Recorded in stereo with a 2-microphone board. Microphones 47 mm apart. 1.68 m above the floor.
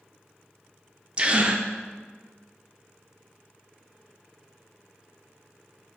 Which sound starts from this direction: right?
A gasp, at 1.2 s.